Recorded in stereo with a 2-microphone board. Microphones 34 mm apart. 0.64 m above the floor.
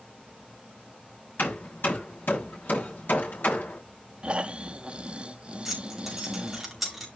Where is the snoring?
35° right (ahead or behind), 0.7 m.